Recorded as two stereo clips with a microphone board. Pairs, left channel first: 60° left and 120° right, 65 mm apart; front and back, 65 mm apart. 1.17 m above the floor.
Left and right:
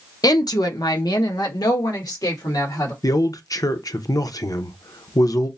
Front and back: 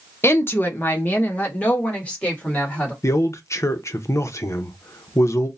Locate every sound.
0.2 s a woman speaking: 50° left, 0.6 m; by 2.9 s 70° left, 2 m
3.0 s a man speaking: 40° left, 0.6 m